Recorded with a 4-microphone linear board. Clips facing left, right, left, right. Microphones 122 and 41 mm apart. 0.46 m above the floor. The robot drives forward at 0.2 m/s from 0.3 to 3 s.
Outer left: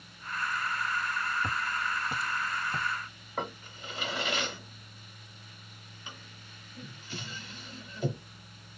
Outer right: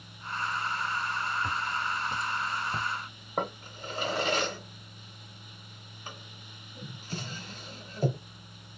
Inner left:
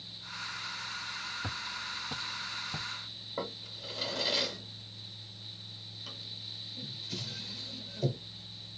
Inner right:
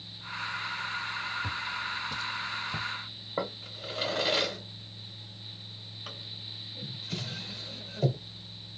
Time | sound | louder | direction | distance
1.4 | footsteps | outer right 1 dB, inner right 5 dB | 20° left (ahead or behind) | 1.2 m
3.4 | a drawer | outer right 4 dB, inner right 5 dB | 40° right (ahead or behind) | 0.7 m